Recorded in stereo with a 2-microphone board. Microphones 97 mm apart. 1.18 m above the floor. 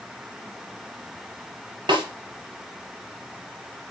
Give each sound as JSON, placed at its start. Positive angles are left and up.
{"t": 1.9, "sound": "a snare drum", "side_deg": -50, "distance_m": 3.5}